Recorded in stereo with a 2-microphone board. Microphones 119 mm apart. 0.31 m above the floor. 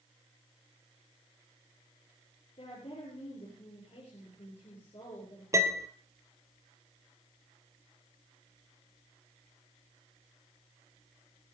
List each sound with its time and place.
2.6 s a woman speaking: 55° left (ahead or behind), 6 m
5.5 s a piano: 25° right (ahead or behind), 1.3 m